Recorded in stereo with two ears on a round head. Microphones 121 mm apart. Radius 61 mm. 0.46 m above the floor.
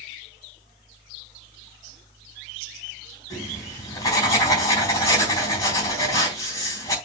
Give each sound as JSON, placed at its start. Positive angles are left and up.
{"t": 3.3, "sound": "writing", "side_deg": 20, "distance_m": 3.5}